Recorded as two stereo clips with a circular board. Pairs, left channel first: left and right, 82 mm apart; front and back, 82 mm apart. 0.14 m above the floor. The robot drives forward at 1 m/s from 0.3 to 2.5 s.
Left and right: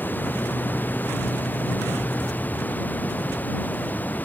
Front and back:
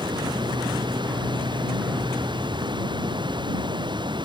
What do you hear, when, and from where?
0.0 s running water: 155° left; by 4.2 s 160° left